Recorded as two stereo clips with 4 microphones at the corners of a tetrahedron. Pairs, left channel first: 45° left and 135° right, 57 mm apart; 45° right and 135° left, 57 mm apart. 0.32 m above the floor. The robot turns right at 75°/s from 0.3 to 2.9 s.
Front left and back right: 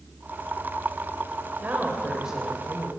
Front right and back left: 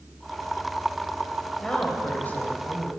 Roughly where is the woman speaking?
Behind right.